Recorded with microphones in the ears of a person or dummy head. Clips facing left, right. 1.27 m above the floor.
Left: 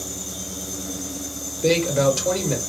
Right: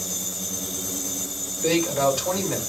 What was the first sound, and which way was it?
A man speaking, 45° left (ahead or behind).